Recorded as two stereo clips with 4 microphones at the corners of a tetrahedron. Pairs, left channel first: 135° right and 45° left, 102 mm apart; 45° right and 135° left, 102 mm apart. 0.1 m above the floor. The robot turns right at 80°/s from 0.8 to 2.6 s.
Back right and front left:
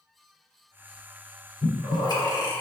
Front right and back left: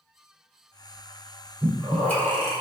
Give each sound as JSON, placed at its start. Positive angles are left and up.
{"t": 1.6, "sound": "breathing", "azimuth_deg": -160, "distance_m": 2.0}